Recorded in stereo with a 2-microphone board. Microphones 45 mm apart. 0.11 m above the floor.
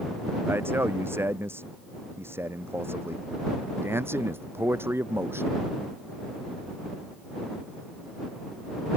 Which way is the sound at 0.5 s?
60° right (ahead or behind).